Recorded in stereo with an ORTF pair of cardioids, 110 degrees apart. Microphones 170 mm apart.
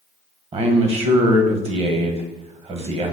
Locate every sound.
0.5 s a man speaking: 35° right, 1.0 m